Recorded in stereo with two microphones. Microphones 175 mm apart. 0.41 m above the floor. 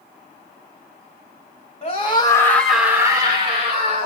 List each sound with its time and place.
1.8 s a scream: 40° left (ahead or behind), 1.7 m; by 4.1 s 45° right (ahead or behind), 2.5 m